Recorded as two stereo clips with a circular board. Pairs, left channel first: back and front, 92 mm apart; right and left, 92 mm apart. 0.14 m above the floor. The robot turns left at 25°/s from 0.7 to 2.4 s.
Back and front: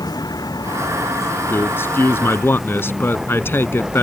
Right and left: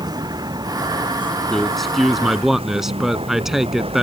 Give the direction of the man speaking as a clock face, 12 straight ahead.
6 o'clock.